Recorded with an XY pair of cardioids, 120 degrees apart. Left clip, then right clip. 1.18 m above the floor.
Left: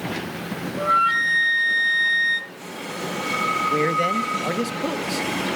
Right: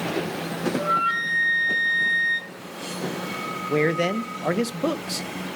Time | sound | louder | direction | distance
0.8 | a flute | left 5 dB | 30° left | 1.0 m
3.7 | a man speaking | left 2 dB | 20° right | 0.9 m